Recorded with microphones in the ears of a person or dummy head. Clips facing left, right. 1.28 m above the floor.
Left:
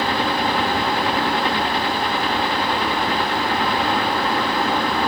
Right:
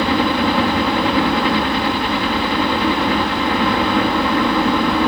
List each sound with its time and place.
0.0 s a helicopter: 60° right (ahead or behind)